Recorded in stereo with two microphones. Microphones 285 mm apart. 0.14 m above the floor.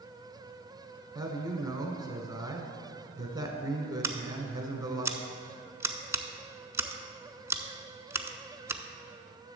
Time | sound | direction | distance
1.1 | a man speaking | 15° right (ahead or behind) | 1.1 m
4.0 | scissors | 10° right (ahead or behind) | 0.6 m